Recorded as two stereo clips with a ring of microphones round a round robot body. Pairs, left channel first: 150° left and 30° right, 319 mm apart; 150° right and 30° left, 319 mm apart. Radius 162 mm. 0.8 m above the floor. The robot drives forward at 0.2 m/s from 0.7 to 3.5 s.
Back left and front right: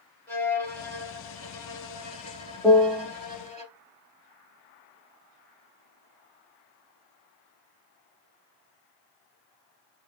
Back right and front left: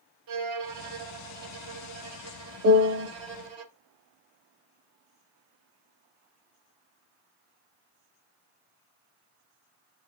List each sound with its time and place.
0.3 s a violin: 65° left, 2.0 m; by 3.6 s 85° left, 1.8 m
2.6 s a piano: 55° left, 0.7 m; by 3.1 s 70° left, 0.6 m